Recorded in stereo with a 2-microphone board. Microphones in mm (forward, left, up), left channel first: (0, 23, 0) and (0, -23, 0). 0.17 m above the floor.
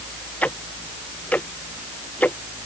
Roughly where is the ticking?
Left.